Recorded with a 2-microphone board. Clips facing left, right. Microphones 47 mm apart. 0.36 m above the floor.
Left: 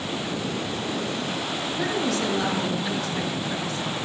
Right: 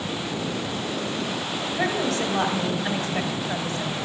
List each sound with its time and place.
1.8 s a woman speaking: 40° right (ahead or behind), 2 m